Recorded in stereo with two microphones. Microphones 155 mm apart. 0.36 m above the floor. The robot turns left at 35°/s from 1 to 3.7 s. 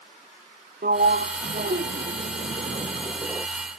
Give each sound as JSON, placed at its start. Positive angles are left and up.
{"t": 0.8, "sound": "a sliding door", "azimuth_deg": -75}